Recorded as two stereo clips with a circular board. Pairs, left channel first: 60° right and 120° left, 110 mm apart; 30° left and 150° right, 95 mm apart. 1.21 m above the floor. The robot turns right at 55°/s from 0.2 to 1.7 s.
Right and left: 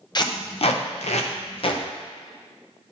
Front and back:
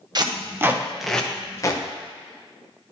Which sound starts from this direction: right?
Tape being pulled, at 0.1 s.